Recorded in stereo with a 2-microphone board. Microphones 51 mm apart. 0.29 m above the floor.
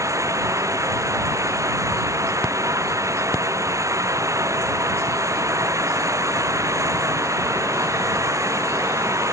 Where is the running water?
80° right.